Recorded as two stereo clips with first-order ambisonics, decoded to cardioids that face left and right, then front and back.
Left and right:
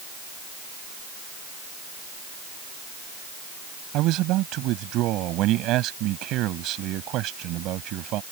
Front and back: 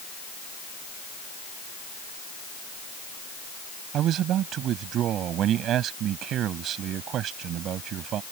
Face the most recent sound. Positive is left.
turn(degrees=-130)